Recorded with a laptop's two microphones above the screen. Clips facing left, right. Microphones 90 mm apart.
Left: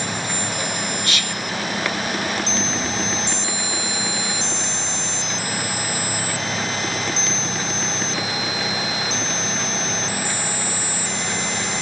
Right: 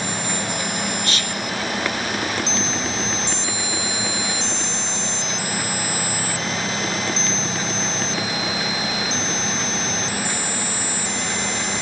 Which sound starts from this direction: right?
Whispering, at 1.0 s.